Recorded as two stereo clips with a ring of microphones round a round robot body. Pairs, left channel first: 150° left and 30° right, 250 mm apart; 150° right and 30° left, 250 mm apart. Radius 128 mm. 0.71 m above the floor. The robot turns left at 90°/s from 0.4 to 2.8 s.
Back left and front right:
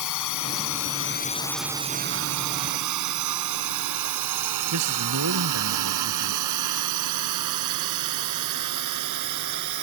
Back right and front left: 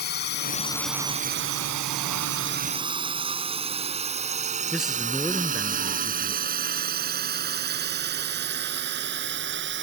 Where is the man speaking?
60° right.